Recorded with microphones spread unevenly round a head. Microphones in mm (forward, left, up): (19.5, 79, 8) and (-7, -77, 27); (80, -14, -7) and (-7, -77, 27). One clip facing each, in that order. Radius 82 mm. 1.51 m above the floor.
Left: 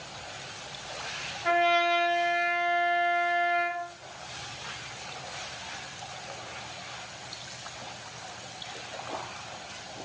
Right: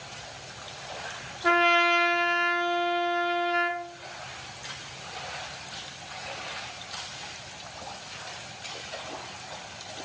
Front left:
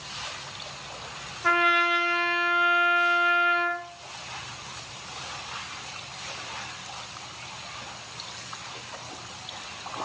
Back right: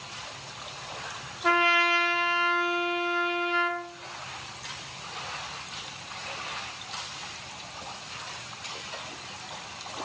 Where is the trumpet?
90° right, 0.6 m.